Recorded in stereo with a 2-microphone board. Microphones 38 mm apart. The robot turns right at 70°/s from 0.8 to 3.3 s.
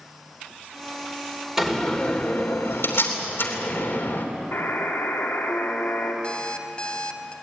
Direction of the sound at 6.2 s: 25° left (ahead or behind).